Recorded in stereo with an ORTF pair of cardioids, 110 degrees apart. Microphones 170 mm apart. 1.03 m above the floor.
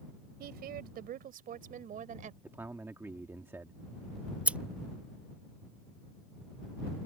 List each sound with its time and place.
0.4 s a woman speaking: 70° right; by 2.3 s 50° right
2.4 s a man speaking: 15° right
4.3 s scissors: 10° right